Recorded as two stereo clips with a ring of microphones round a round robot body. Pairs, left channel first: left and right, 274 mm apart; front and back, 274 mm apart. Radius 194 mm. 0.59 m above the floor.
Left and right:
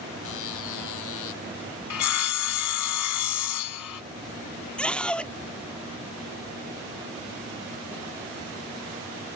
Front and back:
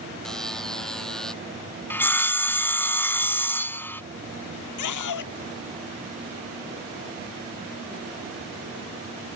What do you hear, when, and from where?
0.2 s a buzzer: 90° left
1.9 s sawing: 85° left
4.8 s a scream: 5° left